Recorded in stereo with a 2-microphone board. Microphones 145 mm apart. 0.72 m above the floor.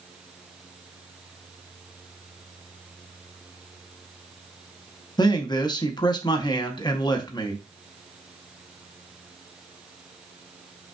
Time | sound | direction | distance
5.2 | a man speaking | 30° left (ahead or behind) | 0.8 m